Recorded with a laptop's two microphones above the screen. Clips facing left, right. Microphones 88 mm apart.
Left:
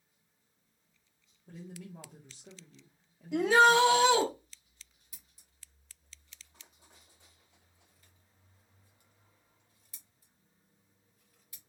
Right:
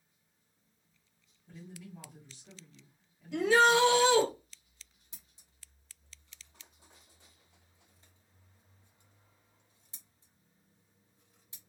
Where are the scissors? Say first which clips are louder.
Right 1 dB; 25° right (ahead or behind), 0.9 m.